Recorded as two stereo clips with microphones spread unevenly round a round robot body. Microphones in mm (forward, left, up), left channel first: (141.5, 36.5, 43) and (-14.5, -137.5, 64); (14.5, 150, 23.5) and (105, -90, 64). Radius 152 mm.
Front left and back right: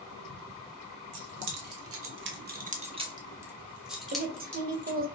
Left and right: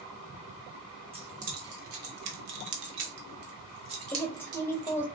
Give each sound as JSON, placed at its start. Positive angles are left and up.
{"t": 1.1, "sound": "keys jangling", "azimuth_deg": -145, "distance_m": 1.4}
{"t": 4.1, "sound": "a woman speaking", "azimuth_deg": 180, "distance_m": 1.1}